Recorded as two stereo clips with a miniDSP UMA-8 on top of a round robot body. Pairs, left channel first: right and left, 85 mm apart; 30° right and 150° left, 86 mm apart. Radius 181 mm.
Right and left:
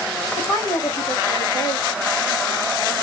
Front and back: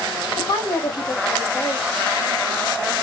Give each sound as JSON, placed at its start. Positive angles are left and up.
{"t": 0.4, "sound": "a woman speaking", "azimuth_deg": -55, "distance_m": 1.7}